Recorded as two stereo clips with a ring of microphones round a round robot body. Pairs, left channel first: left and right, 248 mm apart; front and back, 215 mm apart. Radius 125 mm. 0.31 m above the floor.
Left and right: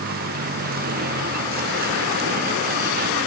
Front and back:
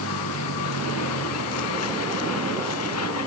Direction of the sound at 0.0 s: 35° right.